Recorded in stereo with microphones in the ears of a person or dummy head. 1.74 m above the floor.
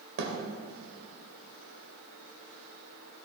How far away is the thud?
About 2.5 m.